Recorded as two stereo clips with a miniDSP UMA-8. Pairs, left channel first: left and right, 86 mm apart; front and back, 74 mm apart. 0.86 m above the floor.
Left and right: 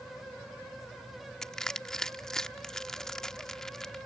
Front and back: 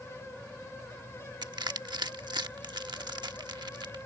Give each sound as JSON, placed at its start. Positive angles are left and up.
{"t": 1.4, "sound": "crushing", "azimuth_deg": 175}